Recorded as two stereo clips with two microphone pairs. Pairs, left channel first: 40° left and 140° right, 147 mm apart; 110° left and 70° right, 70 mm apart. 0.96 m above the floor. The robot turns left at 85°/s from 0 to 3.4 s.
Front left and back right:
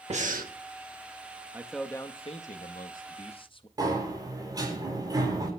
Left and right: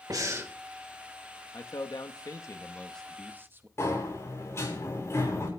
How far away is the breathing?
About 1.5 m.